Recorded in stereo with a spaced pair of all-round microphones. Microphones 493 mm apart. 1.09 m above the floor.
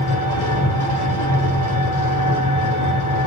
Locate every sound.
0.0 s an engine running: 65° left (ahead or behind), 3.5 m